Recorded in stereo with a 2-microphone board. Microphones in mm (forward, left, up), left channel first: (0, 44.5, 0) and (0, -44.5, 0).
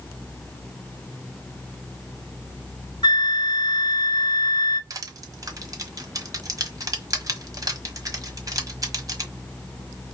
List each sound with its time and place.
3.0 s a flute: 60° left (ahead or behind), 0.7 m
4.9 s crushing: 40° right (ahead or behind), 1.4 m